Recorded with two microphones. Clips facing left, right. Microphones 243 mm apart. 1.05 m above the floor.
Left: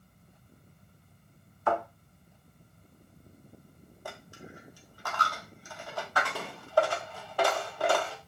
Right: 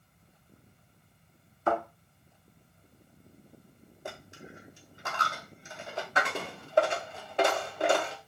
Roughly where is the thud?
Right.